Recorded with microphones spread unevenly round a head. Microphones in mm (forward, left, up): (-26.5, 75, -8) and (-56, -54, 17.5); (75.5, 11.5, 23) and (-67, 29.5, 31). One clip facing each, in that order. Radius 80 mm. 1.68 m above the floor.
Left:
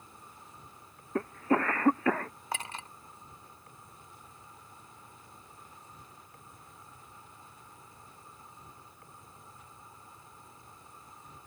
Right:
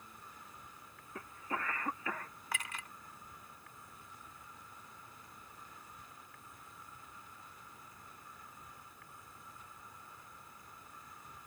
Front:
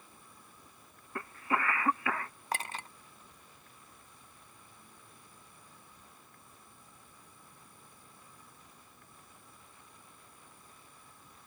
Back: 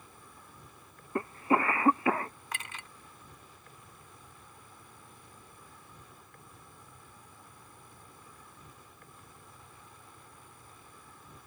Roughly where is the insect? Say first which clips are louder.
Left 2 dB, back 3 dB; behind left.